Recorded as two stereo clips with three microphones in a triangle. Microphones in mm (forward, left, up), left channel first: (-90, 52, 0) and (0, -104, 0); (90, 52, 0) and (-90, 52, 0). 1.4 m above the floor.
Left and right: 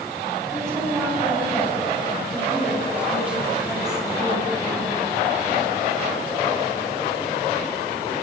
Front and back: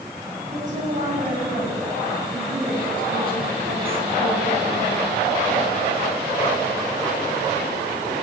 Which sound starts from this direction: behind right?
A woman speaking, at 0.5 s.